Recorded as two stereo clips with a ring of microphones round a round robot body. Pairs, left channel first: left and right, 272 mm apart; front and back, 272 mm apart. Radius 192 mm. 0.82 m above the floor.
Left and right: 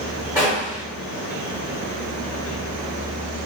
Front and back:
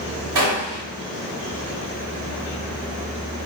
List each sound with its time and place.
0.3 s a gunshot: 175° right, 0.8 m